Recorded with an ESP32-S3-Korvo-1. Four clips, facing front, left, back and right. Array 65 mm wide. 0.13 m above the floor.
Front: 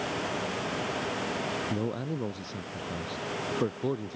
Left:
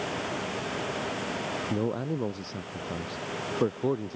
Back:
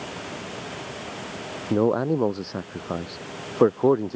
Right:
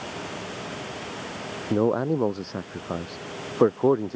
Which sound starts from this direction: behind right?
A man speaking, at 1.7 s.